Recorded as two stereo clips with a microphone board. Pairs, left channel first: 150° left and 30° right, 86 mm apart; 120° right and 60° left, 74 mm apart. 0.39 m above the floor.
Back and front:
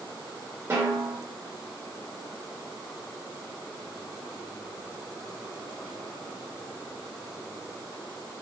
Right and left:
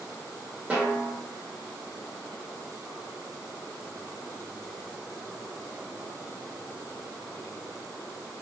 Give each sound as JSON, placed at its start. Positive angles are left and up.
{"t": 0.7, "sound": "a snare drum", "azimuth_deg": 5, "distance_m": 0.8}